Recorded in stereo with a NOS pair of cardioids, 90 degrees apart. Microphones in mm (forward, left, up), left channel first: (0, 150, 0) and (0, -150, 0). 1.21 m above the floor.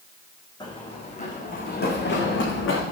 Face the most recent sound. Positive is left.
turn(degrees=45)